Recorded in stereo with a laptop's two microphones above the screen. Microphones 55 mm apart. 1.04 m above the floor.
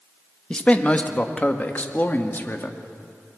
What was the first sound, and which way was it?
A man speaking, 20° left (ahead or behind).